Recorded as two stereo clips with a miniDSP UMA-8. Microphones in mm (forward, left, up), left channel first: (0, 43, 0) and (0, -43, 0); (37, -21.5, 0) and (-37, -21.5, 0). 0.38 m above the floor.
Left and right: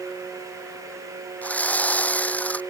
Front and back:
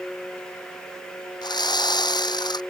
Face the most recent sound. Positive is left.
turn(degrees=15)